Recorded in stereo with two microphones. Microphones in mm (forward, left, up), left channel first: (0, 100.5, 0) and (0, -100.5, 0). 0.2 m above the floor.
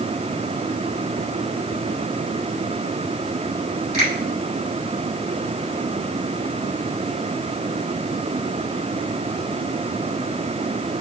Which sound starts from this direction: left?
A finger snap, at 3.9 s.